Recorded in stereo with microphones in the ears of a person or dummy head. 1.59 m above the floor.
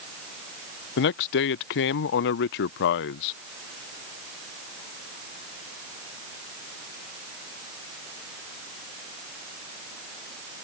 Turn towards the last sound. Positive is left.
turn(degrees=55)  # may be behind; listen again after turning